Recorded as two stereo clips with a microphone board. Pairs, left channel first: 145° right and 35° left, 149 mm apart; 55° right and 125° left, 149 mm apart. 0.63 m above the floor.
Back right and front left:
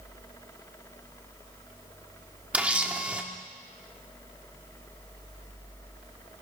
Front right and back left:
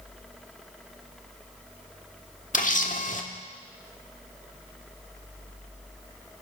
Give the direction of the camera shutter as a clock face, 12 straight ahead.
2 o'clock.